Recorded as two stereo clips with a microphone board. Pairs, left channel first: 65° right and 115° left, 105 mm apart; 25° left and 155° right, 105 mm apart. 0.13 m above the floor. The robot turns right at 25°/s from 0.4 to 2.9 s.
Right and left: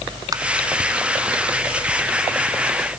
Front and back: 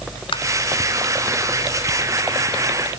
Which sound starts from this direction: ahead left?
Tapping, at 0.3 s.